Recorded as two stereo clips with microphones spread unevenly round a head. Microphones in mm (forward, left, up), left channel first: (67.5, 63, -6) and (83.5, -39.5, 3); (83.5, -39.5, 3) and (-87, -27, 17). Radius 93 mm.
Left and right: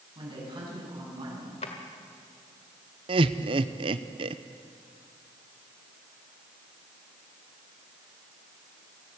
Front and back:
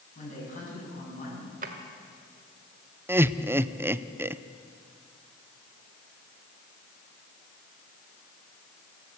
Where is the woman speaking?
45° right, 9 m.